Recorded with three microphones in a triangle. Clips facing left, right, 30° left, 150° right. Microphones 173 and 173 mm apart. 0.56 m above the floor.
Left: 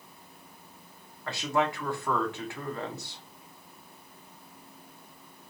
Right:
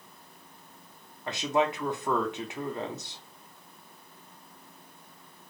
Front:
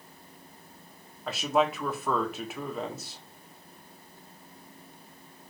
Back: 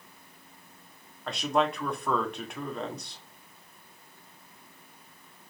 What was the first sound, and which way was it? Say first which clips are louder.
A man speaking: right 2 dB, front 1 dB; 50° right.